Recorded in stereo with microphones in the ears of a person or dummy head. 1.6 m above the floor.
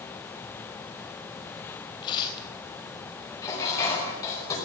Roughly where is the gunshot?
No gunshot in this recording.